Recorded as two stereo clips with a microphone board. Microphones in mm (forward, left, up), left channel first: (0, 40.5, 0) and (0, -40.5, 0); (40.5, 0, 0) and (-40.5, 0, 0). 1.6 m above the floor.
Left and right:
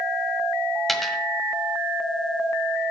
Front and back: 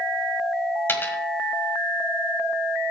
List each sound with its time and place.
0.9 s a dropped coin: 5° left, 1.5 m